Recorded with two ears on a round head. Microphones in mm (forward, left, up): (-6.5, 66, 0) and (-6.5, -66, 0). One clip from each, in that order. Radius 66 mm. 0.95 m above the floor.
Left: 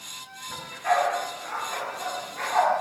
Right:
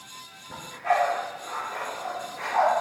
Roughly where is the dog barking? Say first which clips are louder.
Even; left.